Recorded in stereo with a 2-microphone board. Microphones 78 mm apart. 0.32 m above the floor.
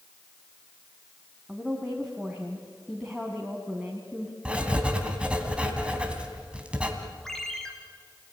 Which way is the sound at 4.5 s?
15° right (ahead or behind).